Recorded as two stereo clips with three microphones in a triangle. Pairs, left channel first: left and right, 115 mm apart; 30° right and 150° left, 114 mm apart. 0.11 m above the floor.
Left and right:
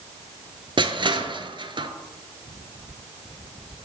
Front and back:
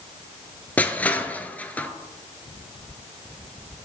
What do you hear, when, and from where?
0.8 s crushing: 100° right, 0.6 m